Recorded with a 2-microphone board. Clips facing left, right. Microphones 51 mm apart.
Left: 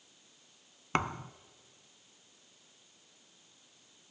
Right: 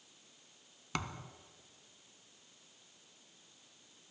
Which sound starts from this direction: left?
A thud, at 0.9 s.